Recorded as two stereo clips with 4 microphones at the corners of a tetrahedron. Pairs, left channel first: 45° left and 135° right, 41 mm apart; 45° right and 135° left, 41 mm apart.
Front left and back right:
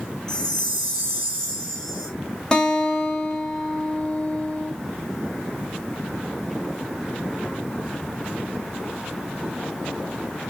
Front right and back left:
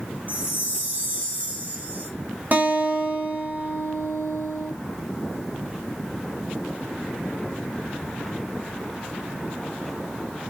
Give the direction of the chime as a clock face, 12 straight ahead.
8 o'clock.